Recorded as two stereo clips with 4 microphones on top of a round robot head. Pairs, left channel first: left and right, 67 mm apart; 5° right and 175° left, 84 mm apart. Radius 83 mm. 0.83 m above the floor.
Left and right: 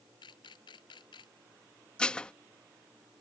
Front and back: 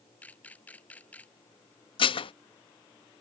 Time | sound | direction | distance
0.2 | a camera shutter | 65° left | ?
2.0 | dishes clattering | 10° left | ?